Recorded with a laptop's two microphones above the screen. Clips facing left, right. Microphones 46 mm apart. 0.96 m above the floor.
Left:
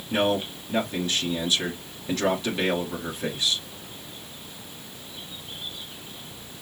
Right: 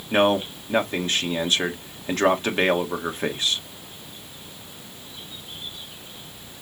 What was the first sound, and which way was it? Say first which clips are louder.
A man speaking: right 4 dB; 45° right (ahead or behind).